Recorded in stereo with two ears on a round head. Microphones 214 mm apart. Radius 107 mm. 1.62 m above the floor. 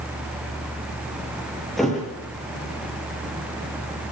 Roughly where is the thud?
Centre.